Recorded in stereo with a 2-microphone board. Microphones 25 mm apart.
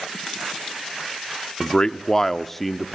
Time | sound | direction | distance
1.6 | a man speaking | 30° left (ahead or behind) | 0.9 m